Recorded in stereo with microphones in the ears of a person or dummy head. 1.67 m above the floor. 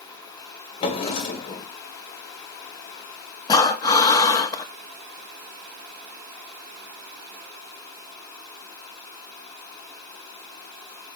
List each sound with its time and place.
0.8 s a drawer: 35° left (ahead or behind), 1.9 m
3.5 s breathing: 25° left (ahead or behind), 1.3 m